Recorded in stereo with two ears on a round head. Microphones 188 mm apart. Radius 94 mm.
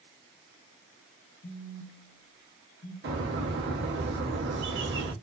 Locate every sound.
1.4 s a phone buzzing: 45° left (ahead or behind), 0.7 m
3.0 s a bird: 55° right (ahead or behind), 0.8 m